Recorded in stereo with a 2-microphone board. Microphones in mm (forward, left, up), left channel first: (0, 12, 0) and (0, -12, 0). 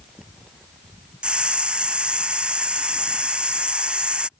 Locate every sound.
1.2 s a hiss: 45° right (ahead or behind)